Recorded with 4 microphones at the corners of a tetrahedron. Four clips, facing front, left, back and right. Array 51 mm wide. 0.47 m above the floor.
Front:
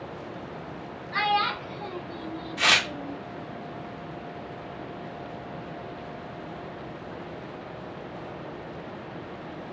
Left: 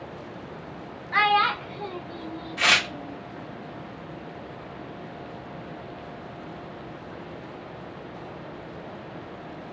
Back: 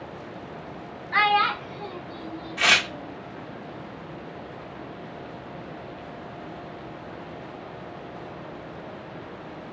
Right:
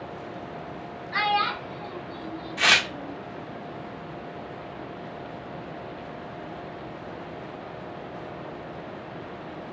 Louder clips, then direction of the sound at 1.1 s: Left 4 dB, back 4 dB; 150° left.